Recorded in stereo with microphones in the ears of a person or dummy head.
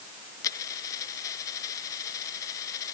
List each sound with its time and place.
0.4 s a dropped coin: 20° left (ahead or behind)